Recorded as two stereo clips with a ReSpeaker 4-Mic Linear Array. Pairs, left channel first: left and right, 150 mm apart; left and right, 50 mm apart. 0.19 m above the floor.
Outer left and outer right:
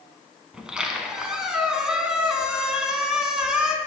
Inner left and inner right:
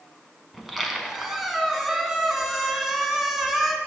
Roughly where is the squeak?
Centre.